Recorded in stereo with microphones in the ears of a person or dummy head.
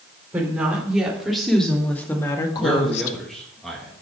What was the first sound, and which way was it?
A woman speaking, 10° right (ahead or behind).